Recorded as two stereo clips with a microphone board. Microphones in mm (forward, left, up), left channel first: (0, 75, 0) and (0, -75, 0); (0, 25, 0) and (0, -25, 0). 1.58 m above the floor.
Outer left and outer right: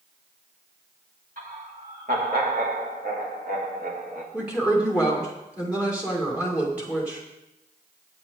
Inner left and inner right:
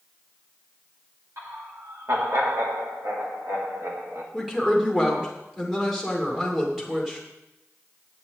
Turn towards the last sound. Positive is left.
turn(degrees=-10)  # may be behind; listen again after turning